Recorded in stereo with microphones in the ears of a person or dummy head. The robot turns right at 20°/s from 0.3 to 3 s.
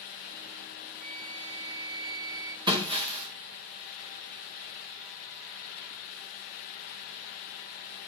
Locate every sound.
1.0 s a flute: 50° right, 1.3 m; by 2.6 s 20° right, 1.3 m
2.7 s breaking glass: 25° right (ahead or behind), 2.5 m; by 3.3 s 30° right (ahead or behind), 2.5 m